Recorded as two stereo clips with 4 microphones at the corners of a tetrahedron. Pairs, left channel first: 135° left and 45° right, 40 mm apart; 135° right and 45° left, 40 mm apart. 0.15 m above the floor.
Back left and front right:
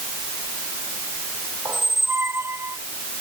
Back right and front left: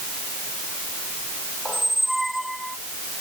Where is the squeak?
45° right.